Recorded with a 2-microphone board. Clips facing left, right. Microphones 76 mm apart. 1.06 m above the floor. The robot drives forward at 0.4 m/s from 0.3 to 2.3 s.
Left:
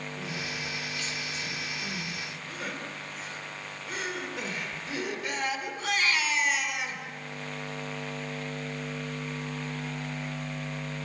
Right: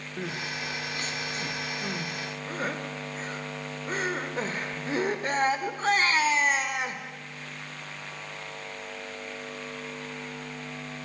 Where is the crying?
55° right (ahead or behind), 1.6 m; by 7.0 s 40° right (ahead or behind), 2 m.